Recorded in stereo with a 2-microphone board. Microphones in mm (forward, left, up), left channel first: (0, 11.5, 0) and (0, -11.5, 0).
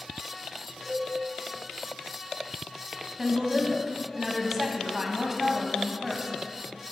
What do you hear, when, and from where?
0.8 s a cowbell: 5° left (ahead or behind), 1.9 m
3.2 s a woman speaking: 10° right (ahead or behind), 1.3 m